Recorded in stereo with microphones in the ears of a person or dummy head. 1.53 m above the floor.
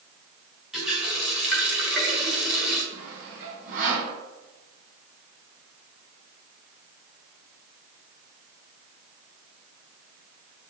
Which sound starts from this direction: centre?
A running tap, at 0.7 s.